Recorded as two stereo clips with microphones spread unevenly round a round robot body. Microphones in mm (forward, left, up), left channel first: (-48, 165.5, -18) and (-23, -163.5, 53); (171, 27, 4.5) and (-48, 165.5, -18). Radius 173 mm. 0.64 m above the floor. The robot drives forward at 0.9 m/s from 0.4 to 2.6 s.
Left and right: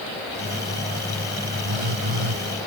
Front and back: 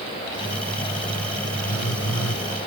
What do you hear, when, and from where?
1.6 s a phone buzzing: 80° right; by 2.5 s 85° right